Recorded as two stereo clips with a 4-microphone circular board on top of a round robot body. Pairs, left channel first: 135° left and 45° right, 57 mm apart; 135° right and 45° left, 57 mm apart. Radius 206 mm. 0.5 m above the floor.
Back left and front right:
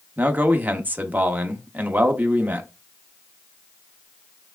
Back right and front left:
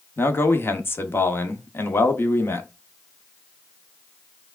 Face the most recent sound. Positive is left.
turn(degrees=-95)